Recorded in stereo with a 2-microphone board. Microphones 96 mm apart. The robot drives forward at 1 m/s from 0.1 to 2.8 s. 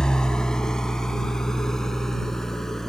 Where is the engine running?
10° left (ahead or behind); by 2.9 s 5° left (ahead or behind).